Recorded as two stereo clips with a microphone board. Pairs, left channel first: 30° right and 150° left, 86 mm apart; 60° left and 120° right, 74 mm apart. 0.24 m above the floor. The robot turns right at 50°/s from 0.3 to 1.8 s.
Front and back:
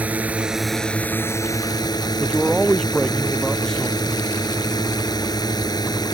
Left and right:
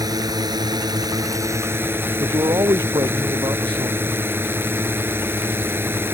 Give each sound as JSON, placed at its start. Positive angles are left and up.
{"t": 0.0, "sound": "a drone", "azimuth_deg": -140}
{"t": 2.2, "sound": "a man speaking", "azimuth_deg": -110}